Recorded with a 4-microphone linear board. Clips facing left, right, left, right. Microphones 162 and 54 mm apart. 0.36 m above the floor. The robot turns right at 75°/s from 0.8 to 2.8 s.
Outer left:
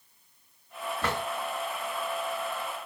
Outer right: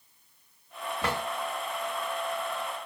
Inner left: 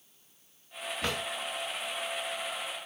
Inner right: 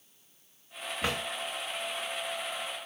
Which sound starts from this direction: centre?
A drawer, at 1.0 s.